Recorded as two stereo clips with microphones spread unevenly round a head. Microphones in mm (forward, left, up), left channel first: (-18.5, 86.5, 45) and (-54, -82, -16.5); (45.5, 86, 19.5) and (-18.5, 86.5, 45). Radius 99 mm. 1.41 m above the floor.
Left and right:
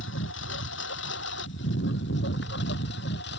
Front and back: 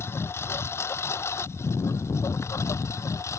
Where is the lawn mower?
50° left; by 3.4 s 45° left.